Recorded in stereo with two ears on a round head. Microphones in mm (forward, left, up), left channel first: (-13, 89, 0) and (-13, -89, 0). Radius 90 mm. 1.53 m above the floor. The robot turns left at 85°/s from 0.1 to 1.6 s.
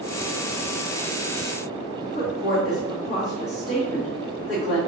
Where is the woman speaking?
55° left (ahead or behind), 1.6 m.